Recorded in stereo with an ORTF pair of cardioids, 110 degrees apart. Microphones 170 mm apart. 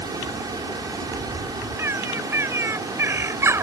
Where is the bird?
15° right.